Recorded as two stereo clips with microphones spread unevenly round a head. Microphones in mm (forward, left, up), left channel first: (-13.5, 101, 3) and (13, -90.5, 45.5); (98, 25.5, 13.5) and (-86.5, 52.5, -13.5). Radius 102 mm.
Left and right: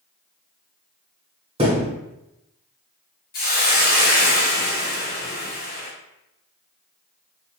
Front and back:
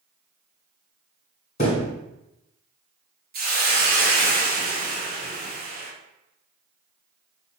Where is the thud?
40° right, 1.5 m.